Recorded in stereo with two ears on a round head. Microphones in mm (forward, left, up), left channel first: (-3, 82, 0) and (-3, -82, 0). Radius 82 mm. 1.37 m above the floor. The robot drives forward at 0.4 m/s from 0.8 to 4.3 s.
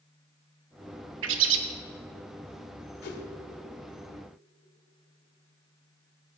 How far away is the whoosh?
About 2.0 m.